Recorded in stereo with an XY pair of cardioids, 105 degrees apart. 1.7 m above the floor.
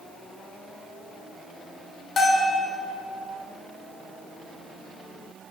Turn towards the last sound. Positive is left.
turn(degrees=45)